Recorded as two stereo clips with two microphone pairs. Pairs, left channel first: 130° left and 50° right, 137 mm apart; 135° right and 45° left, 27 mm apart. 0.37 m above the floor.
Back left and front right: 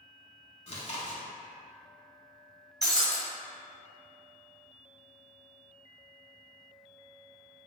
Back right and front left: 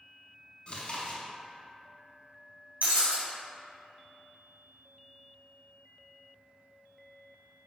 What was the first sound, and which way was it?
Chewing, 175° left.